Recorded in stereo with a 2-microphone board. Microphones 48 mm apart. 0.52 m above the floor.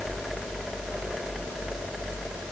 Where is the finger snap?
I don't hear a finger snap.